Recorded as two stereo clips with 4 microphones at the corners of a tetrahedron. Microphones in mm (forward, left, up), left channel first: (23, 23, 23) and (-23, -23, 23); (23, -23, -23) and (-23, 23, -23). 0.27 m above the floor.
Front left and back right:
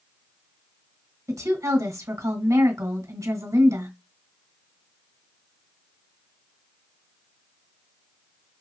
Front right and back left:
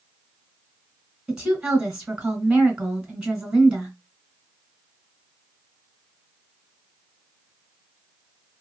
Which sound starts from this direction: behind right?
A woman speaking, at 1.3 s.